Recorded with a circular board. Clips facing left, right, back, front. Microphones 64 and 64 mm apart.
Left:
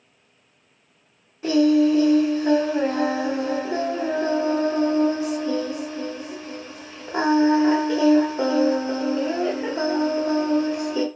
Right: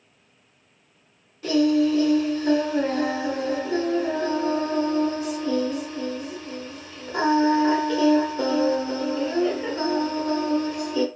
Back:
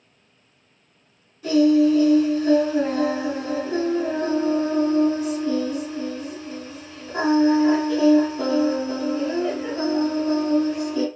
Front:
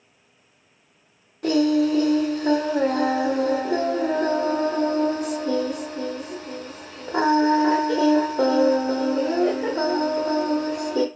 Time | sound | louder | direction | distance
1.4 | singing | left 3 dB, back 3 dB | 25° left | 0.7 m